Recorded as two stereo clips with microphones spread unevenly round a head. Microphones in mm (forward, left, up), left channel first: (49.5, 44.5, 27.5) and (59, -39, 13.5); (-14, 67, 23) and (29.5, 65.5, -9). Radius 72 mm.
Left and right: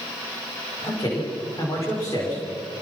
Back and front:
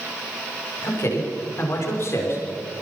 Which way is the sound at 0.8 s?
160° left.